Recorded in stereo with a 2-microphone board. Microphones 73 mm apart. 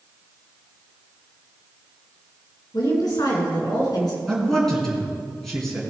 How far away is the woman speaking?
About 3 m.